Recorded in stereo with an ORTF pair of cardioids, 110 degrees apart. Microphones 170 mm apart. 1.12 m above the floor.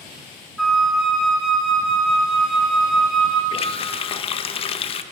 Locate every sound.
0.6 s a flute: straight ahead, 1.0 m
3.5 s a running tap: 35° left, 0.5 m